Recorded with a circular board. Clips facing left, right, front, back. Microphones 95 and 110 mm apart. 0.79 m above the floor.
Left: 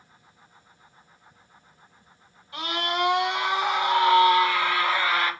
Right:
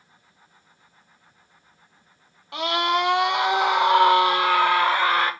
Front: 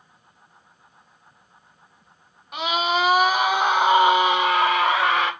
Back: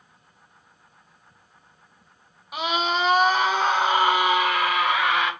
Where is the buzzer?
No buzzer in this recording.